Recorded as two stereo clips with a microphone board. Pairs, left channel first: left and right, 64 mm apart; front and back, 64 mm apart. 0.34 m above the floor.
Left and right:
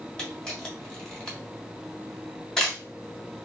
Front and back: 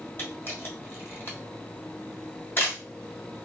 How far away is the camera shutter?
About 1.3 m.